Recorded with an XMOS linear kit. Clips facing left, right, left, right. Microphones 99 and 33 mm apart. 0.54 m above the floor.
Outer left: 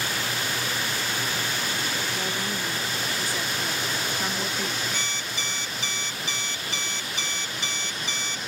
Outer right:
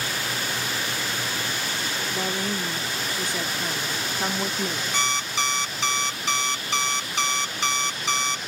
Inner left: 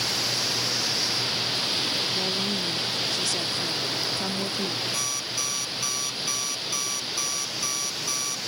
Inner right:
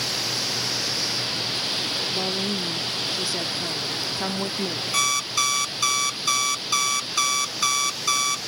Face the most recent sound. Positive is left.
turn(degrees=-80)